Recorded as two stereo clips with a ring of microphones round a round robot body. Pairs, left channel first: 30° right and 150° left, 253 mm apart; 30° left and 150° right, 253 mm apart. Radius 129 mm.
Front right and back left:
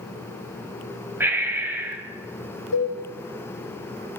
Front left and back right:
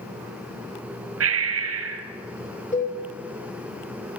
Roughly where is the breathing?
Behind right.